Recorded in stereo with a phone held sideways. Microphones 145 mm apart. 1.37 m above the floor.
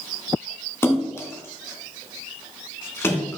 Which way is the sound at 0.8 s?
15° left (ahead or behind).